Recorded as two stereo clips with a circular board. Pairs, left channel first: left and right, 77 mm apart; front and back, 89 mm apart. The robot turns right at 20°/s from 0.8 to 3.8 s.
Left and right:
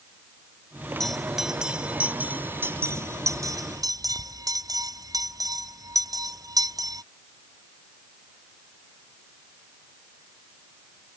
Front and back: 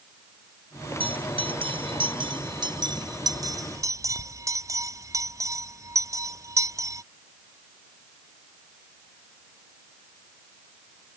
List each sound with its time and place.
1.0 s a bell: 175° left; by 7.0 s 130° right